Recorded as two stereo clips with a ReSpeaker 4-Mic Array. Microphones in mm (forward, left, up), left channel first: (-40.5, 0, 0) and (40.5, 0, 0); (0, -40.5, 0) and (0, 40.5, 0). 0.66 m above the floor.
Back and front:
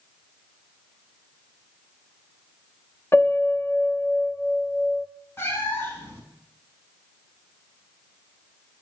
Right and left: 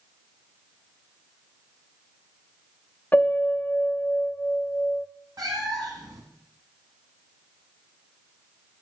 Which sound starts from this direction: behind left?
A cat meowing, at 5.4 s.